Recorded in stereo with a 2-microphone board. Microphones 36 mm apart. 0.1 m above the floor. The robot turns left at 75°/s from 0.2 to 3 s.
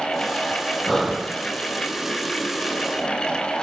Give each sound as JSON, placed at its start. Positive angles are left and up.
{"t": 0.9, "sound": "breathing", "azimuth_deg": 15, "distance_m": 2.0}